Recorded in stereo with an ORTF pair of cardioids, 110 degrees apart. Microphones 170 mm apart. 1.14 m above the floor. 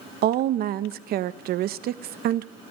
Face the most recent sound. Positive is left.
turn(degrees=-65)